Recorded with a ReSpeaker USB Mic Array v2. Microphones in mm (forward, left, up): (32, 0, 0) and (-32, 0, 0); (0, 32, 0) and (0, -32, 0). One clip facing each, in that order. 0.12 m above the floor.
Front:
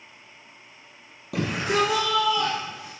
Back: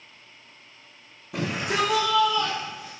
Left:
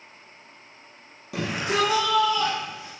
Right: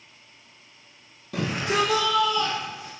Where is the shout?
10° left, 5.5 m; by 2.9 s 25° left, 7.5 m.